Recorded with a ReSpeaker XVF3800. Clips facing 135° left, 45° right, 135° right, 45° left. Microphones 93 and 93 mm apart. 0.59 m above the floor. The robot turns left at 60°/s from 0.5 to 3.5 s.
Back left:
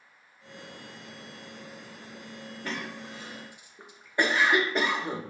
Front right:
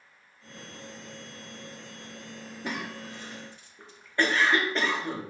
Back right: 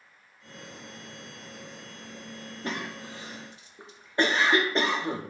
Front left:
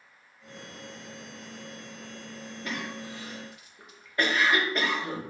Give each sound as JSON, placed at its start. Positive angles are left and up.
{"t": 2.6, "sound": "a cough", "azimuth_deg": -110, "distance_m": 0.6}